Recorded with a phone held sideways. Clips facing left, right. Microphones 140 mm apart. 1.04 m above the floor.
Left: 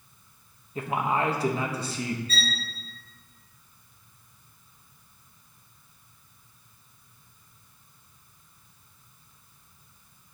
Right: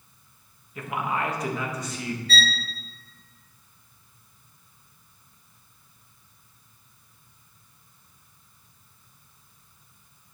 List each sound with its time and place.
0.8 s a man speaking: 30° left (ahead or behind), 1.4 m
2.3 s a violin: 75° right (ahead or behind), 0.9 m